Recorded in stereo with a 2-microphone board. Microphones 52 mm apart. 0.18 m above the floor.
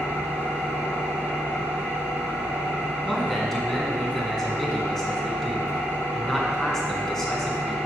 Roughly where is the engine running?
Left.